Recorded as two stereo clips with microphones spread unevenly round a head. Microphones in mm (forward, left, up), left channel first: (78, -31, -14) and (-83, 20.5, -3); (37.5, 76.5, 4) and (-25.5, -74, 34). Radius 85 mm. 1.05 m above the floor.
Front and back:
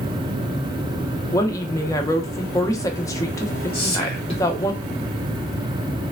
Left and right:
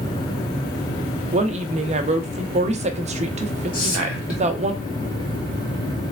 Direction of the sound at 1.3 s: 75° right.